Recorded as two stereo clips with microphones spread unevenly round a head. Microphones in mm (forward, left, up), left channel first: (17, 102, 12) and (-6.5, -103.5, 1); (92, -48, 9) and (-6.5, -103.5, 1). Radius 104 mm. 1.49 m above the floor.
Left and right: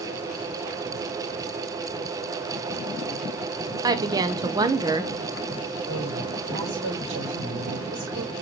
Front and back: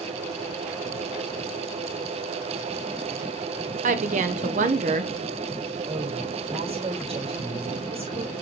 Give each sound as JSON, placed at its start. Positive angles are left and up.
{"t": 3.8, "sound": "a woman speaking", "azimuth_deg": -170, "distance_m": 1.0}
{"t": 5.9, "sound": "a woman speaking", "azimuth_deg": -125, "distance_m": 5.5}